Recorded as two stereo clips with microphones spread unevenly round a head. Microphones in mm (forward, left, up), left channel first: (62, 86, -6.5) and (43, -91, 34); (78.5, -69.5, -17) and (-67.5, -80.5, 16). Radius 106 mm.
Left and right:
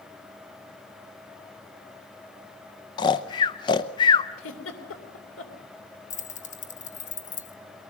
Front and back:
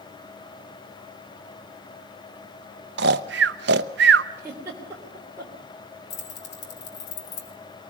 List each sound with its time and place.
3.0 s snoring: 150° left, 0.6 m
4.4 s a giggle: 105° left, 3 m
6.1 s keys jangling: 35° left, 1.8 m